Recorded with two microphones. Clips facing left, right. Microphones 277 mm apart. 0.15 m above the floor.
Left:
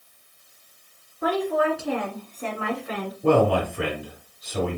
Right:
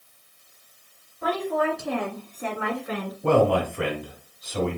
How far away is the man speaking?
About 1.7 m.